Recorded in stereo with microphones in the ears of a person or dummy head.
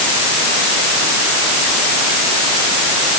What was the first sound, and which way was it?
Only background noise.